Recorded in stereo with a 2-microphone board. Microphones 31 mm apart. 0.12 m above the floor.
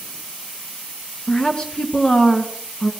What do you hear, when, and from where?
1.3 s a woman speaking: 25° left (ahead or behind), 1.4 m